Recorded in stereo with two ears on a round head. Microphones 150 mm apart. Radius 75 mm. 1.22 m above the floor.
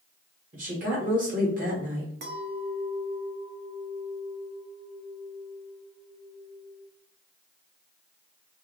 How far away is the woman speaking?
About 1.6 m.